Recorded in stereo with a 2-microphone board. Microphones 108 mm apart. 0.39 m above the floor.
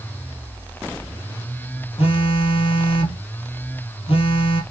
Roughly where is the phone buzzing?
Left.